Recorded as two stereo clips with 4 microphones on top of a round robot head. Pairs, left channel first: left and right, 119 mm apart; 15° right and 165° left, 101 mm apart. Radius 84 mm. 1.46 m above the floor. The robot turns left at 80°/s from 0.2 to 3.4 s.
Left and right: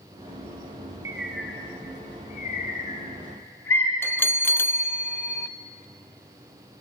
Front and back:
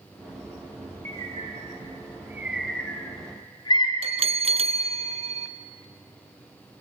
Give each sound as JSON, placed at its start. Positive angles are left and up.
{"t": 1.1, "sound": "a bird", "azimuth_deg": -155, "distance_m": 1.3}
{"t": 4.0, "sound": "a bell", "azimuth_deg": 160, "distance_m": 0.5}